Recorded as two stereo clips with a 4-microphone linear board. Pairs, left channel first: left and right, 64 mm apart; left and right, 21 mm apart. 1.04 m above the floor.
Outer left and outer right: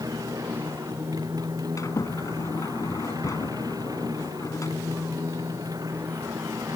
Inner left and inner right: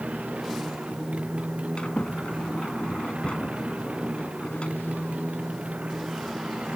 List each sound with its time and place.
0.0 s a motorcycle: 75° right (ahead or behind)
1.8 s a sliding door: 55° left (ahead or behind)